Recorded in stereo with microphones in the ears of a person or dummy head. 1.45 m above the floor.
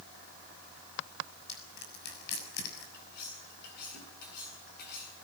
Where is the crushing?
65° left (ahead or behind), 6.5 m.